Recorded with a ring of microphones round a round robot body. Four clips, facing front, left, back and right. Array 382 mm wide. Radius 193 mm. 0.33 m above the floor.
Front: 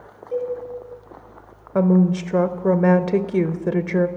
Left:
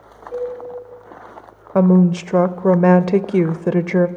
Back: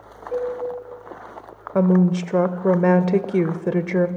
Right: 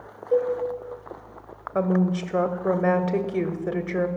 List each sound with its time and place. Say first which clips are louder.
0.3 s a cowbell: right 3 dB, even; 105° right, 6 m
1.8 s a woman speaking: left 9 dB, even; 90° left, 1.2 m